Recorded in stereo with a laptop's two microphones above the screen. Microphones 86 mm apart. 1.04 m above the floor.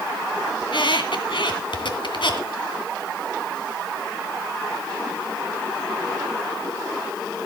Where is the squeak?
70° left (ahead or behind), 2 m.